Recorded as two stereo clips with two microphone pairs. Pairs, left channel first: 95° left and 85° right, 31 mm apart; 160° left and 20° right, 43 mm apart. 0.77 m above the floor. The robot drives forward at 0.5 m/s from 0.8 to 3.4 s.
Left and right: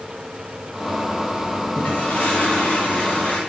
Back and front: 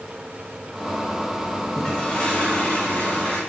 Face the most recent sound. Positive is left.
turn(degrees=115)